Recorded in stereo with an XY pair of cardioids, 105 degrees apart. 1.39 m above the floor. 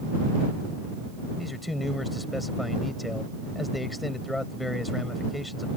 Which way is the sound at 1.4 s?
10° left.